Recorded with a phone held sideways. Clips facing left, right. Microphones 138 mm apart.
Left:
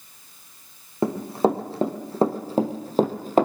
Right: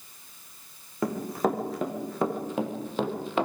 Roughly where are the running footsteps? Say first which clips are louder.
Left 5 dB; left.